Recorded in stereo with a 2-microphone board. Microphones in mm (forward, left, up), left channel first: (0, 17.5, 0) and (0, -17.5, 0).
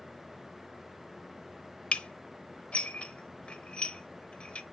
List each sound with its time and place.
1.9 s dishes clattering: 35° left (ahead or behind), 0.8 m